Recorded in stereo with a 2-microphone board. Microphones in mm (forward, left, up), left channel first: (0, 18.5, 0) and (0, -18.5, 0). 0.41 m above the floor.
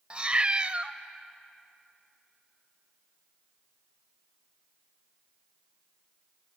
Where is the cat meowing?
30° right (ahead or behind), 0.7 m.